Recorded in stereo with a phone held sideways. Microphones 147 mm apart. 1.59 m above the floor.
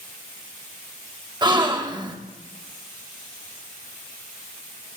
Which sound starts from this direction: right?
A gasp, at 1.4 s.